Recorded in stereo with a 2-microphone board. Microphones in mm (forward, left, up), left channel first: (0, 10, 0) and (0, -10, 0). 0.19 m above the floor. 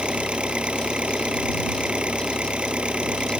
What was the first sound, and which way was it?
An engine running, 75° right (ahead or behind).